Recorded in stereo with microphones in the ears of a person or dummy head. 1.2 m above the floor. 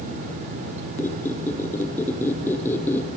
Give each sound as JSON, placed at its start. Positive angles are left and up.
{"t": 1.0, "sound": "a squeak", "side_deg": 15, "distance_m": 3.0}